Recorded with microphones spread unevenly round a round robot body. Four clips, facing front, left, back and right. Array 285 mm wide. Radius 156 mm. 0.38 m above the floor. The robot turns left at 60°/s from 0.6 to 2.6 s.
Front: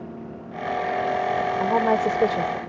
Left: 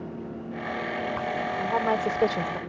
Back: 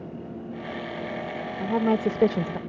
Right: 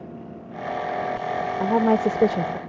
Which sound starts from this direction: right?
A woman speaking, at 1.6 s.